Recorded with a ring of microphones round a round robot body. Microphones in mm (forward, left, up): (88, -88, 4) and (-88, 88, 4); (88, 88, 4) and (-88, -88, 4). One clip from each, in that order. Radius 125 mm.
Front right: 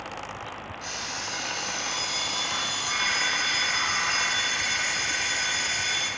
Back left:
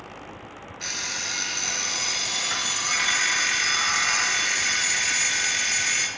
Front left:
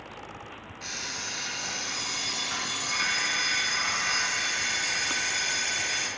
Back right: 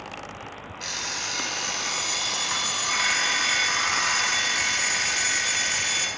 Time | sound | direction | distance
0.8 | an alarm clock | 165° right | 2 m